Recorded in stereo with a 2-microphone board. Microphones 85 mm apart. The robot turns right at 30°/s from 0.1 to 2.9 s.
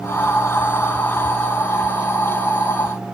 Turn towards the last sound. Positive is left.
No sound to turn to.